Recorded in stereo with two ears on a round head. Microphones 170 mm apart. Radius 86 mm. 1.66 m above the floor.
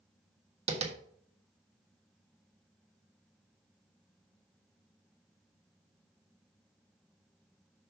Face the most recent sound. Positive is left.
turn(degrees=-35)  # may be behind; listen again after turning